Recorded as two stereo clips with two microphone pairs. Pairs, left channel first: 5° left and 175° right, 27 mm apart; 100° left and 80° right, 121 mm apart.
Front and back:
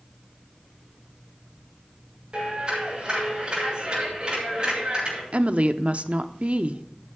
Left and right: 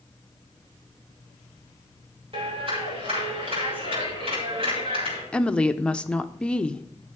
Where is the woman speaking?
175° left, 0.7 m.